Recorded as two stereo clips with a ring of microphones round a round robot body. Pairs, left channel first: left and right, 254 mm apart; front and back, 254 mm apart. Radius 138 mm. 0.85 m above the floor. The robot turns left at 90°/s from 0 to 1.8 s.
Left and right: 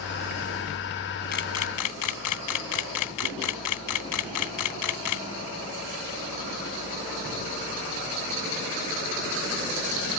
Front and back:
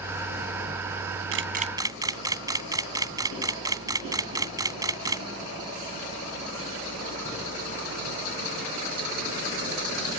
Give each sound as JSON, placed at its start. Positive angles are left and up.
{"t": 1.3, "sound": "a camera shutter", "azimuth_deg": 150}